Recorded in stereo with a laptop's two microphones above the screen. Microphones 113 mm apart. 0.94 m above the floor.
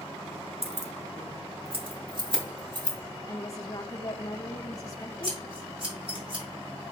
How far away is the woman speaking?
About 0.6 m.